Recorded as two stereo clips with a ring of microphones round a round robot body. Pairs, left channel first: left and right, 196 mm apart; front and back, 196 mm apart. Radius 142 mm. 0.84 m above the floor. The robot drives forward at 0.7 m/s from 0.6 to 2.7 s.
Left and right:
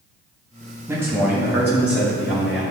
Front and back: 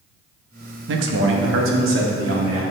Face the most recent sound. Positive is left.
turn(degrees=-175)